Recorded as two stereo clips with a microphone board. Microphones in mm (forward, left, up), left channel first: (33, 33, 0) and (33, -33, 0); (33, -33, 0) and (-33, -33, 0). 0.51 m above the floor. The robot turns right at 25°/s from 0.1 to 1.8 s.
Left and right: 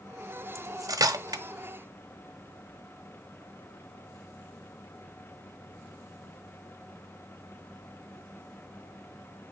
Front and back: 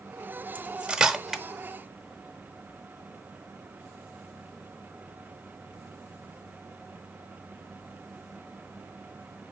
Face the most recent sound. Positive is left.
turn(degrees=-85)